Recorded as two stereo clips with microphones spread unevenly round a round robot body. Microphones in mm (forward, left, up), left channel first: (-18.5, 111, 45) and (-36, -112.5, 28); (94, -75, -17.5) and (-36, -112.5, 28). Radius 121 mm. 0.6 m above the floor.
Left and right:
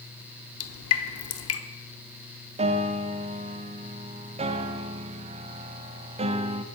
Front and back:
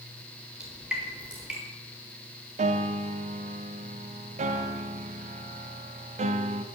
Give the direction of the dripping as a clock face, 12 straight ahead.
9 o'clock.